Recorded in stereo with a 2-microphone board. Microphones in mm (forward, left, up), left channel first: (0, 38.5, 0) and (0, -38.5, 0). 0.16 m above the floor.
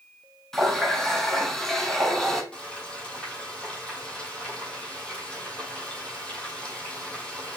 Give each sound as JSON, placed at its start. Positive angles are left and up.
{"t": 0.5, "sound": "a running tap", "side_deg": 5, "distance_m": 1.1}
{"t": 2.5, "sound": "frying", "side_deg": 10, "distance_m": 1.7}